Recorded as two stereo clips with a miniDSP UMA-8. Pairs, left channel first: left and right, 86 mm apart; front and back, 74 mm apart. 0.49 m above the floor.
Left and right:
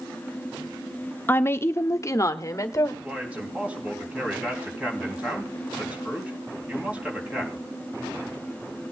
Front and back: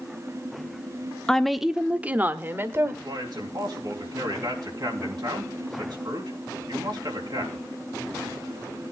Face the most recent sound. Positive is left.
turn(degrees=-165)